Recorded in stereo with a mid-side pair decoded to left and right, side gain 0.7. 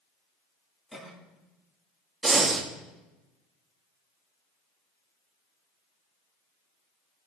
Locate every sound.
0.9 s a cough: 5° left, 3 m
2.2 s breathing: 15° right, 1.1 m